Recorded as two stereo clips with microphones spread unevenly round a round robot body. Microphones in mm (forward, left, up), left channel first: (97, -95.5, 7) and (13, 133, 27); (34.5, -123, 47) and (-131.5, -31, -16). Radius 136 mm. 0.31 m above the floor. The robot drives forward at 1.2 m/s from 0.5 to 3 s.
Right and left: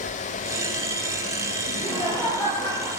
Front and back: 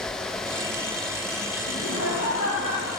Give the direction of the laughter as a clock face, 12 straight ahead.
12 o'clock.